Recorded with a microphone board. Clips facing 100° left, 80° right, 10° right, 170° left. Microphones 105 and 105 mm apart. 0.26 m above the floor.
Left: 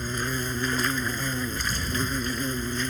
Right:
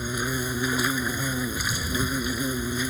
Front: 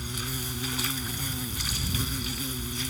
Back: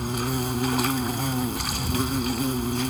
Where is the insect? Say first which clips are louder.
Right 1 dB, back 10 dB; 160° right.